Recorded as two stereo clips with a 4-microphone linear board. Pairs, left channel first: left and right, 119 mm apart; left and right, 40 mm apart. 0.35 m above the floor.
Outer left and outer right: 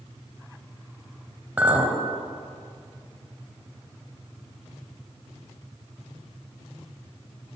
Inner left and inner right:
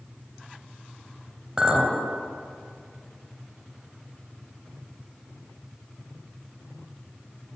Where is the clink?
15° right (ahead or behind), 0.9 m.